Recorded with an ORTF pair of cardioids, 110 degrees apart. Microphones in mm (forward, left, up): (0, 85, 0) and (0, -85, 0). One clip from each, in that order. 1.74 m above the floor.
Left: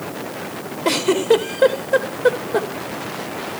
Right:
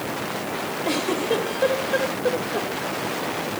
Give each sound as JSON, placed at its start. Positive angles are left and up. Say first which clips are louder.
{"t": 0.8, "sound": "a giggle", "louder": "left 8 dB", "azimuth_deg": 60, "distance_m": 2.5}